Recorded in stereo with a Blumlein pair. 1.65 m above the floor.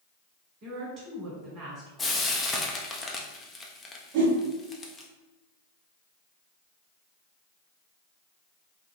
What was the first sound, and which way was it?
A woman speaking, 30° right.